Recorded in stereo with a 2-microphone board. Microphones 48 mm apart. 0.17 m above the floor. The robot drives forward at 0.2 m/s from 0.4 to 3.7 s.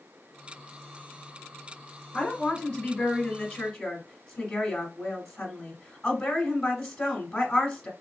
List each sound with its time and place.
2.1 s a woman speaking: 15° left (ahead or behind), 1.1 m